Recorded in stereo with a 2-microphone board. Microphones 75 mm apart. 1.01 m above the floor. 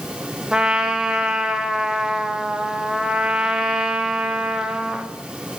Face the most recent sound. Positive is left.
turn(degrees=-5)  # may be behind; listen again after turning